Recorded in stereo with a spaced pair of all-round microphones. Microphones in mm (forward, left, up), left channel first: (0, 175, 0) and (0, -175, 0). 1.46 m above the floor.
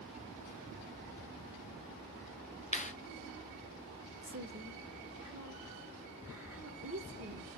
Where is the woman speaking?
40° right (ahead or behind), 1.3 m.